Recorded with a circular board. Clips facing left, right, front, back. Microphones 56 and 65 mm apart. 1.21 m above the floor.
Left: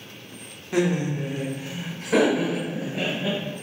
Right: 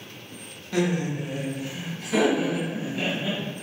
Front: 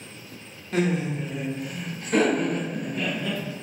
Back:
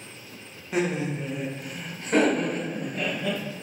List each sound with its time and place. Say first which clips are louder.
0.7 s laughter: left 2 dB, front 1 dB; 130° left, 0.6 m; by 3.4 s 125° left, 1.8 m